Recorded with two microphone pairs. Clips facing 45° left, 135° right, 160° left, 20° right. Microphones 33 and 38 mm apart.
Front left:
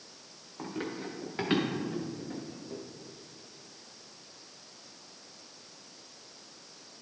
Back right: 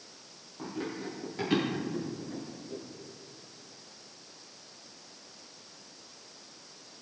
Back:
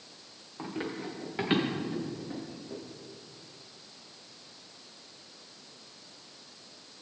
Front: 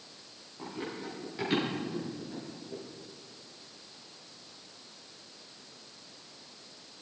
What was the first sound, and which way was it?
Running footsteps, 110° left.